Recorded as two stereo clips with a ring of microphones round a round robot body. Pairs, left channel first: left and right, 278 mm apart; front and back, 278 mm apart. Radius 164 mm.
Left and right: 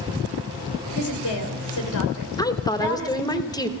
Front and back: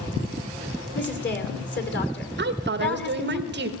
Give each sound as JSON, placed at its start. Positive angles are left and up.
{"t": 0.9, "sound": "a woman speaking", "azimuth_deg": 50, "distance_m": 2.5}
{"t": 2.4, "sound": "a woman speaking", "azimuth_deg": 160, "distance_m": 1.2}